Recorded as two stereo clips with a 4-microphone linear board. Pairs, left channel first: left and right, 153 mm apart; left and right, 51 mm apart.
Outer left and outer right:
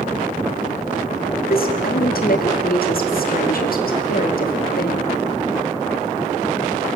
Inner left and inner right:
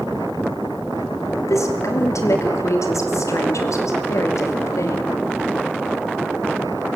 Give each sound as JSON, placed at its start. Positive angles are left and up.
{"t": 1.4, "sound": "a woman speaking", "side_deg": 85, "distance_m": 3.0}